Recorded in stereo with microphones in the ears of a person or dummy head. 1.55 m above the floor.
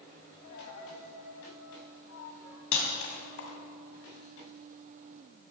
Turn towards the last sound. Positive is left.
turn(degrees=80)